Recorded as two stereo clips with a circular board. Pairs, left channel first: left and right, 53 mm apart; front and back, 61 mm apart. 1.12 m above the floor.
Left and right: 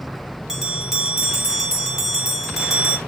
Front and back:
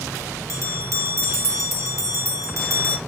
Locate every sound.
0.5 s a bell: 165° right, 1.0 m